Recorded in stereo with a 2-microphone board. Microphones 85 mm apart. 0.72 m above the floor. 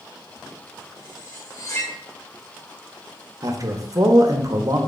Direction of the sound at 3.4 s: 40° right (ahead or behind).